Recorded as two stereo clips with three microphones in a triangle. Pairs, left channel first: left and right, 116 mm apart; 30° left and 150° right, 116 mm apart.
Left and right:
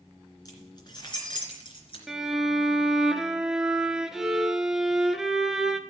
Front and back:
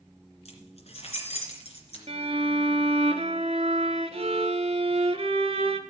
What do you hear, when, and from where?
0.5 s keys jangling: 35° left, 2.5 m; by 2.0 s 50° left, 3 m
2.1 s a violin: 175° right, 0.7 m